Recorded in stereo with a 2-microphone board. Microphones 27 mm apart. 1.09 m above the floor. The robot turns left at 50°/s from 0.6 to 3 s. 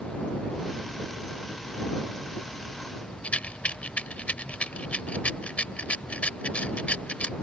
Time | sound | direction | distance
3.2 | a rattle | 60° left (ahead or behind) | ?